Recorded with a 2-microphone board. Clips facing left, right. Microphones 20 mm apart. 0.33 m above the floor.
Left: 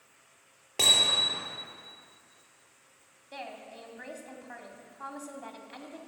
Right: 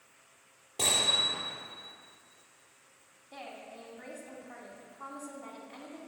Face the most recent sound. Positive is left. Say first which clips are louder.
# left 3 dB
turn(degrees=60)  # may be behind; listen again after turning